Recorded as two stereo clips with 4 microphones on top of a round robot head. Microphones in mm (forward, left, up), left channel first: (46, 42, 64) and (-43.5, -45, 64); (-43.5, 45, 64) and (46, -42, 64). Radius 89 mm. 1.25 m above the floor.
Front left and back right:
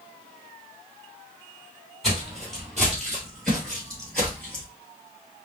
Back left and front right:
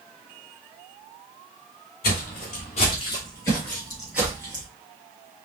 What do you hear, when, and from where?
2.0 s footsteps: 135° left, 1.6 m; by 4.6 s 30° right, 1.3 m